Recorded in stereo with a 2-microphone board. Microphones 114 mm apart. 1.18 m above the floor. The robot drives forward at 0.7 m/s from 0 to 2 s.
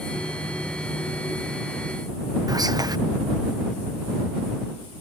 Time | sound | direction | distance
2.5 | whispering | 35° right (ahead or behind) | ?